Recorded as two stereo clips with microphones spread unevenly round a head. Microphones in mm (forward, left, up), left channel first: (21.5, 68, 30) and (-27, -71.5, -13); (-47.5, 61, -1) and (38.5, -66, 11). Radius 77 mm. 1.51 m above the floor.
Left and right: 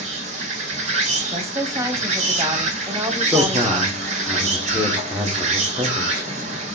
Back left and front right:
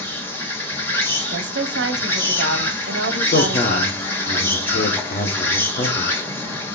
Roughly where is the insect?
Behind.